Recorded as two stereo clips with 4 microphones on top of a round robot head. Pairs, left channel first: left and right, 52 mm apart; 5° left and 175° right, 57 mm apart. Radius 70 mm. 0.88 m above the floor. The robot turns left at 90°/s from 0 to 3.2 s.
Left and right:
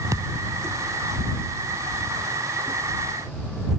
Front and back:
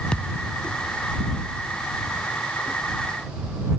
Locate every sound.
0.1 s a thud: 70° right; by 0.4 s 95° right